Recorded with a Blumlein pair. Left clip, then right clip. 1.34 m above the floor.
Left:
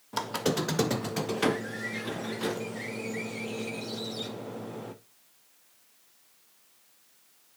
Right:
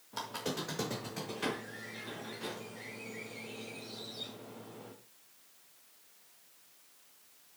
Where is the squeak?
30° left, 0.7 m.